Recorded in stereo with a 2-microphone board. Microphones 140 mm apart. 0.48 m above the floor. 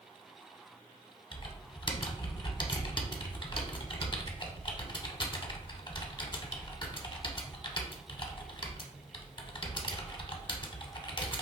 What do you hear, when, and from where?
1.3 s typing on a keyboard: 35° left (ahead or behind), 0.5 m